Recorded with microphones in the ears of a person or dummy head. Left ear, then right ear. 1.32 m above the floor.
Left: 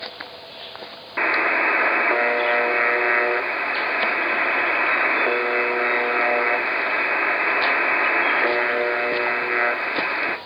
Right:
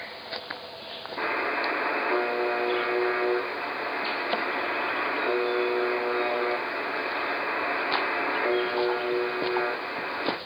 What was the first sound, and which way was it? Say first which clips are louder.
A buzzer: left 8 dB; 70° left (ahead or behind).